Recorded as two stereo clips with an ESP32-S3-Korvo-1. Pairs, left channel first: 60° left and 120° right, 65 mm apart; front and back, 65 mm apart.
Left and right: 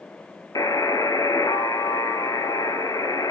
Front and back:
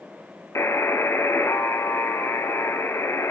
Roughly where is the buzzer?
Ahead left.